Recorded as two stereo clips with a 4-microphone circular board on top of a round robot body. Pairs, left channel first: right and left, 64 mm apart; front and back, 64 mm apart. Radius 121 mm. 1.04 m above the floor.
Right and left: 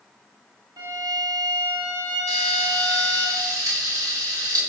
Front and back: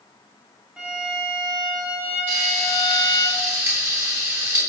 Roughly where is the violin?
Left.